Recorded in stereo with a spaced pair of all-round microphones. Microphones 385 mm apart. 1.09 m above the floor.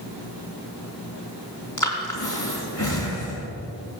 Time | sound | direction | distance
1.8 | breathing | 50° left (ahead or behind) | 3 m